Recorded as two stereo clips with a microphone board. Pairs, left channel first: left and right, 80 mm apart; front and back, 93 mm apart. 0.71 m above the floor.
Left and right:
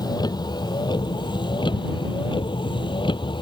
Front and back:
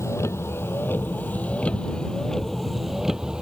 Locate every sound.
0.0 s a vehicle: 60° left; by 3.4 s 100° left